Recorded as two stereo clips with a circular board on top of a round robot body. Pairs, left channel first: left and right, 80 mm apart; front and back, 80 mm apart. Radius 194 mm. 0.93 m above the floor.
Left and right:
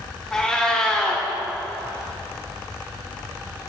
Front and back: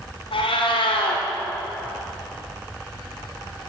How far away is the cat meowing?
About 1.5 m.